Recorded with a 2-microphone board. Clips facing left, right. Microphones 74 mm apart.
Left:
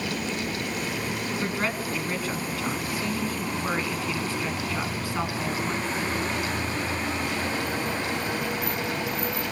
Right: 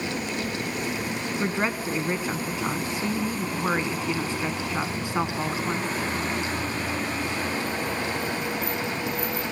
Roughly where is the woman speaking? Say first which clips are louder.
Right 4 dB; right.